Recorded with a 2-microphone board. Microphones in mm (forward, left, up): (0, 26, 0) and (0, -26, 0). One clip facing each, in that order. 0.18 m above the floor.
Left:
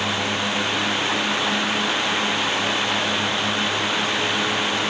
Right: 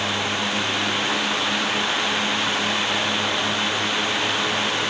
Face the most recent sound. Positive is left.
No sound to turn to.